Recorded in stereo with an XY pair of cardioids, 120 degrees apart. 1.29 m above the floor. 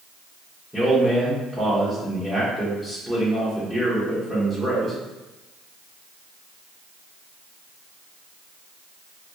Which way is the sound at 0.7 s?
10° left.